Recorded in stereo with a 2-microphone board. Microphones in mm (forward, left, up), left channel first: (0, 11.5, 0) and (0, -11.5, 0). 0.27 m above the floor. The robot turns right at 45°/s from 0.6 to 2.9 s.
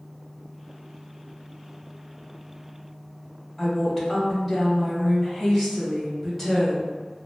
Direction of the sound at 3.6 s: 5° left (ahead or behind).